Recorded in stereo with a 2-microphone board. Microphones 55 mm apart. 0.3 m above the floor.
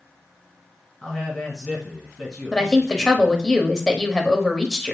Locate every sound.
1.0 s a man speaking: 15° left (ahead or behind), 2 m
2.5 s a woman speaking: 10° left (ahead or behind), 0.9 m